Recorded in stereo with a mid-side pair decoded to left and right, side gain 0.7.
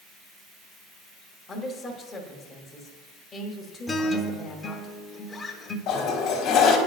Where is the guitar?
20° left, 0.9 m.